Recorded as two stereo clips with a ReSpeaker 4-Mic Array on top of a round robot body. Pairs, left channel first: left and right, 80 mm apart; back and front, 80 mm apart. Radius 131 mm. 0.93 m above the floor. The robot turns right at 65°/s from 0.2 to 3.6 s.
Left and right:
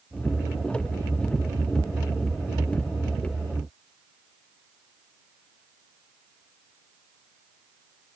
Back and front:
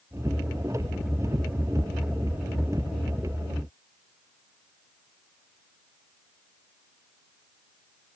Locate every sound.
Only background noise.